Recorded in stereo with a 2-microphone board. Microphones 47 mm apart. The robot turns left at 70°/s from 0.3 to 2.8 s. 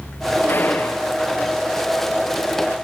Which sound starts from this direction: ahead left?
A gunshot, at 0.5 s.